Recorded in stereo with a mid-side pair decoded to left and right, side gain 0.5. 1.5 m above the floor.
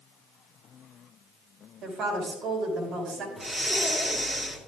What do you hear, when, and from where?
1.8 s a woman speaking: 65° right, 5.5 m
3.4 s breathing: 25° right, 3 m